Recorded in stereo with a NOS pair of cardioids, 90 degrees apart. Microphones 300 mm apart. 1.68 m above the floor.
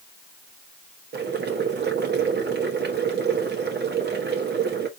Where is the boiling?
35° right, 1.5 m.